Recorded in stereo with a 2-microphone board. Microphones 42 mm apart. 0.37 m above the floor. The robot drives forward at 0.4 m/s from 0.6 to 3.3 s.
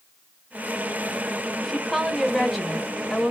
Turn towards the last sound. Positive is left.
turn(degrees=0)  # may be behind; listen again after turning